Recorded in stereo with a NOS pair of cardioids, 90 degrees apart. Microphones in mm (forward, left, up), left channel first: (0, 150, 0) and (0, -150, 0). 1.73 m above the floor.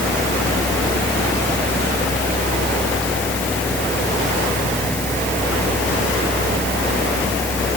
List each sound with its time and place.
0.0 s a fan: 5° left